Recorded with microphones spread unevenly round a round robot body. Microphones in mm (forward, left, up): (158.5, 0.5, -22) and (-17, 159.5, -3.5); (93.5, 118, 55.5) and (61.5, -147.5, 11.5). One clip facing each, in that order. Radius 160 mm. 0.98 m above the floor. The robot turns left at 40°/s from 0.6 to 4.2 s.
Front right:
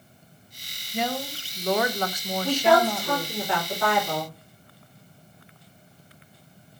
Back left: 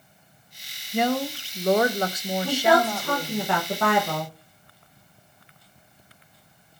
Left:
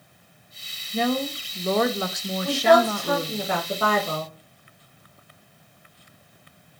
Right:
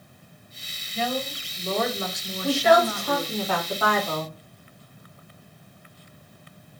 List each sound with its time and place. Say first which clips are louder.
0.9 s a woman speaking: back left 6 dB, left 5 dB; 120° left, 0.6 m; by 3.4 s 20° left, 0.6 m
2.4 s a woman speaking: front right 1 dB, left 1 dB; 160° right, 1.0 m; by 4.3 s 130° left, 1.0 m